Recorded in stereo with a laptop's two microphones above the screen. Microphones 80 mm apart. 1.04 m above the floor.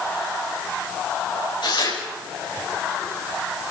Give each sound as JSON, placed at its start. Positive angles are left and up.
{"t": 1.6, "sound": "tearing paper", "side_deg": 80, "distance_m": 7.0}